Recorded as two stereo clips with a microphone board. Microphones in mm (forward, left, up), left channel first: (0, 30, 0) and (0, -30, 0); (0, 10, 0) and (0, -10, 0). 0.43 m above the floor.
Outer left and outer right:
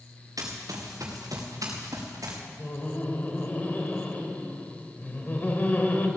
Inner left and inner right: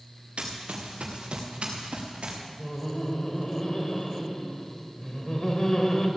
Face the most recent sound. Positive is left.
turn(degrees=30)  # may be behind; listen again after turning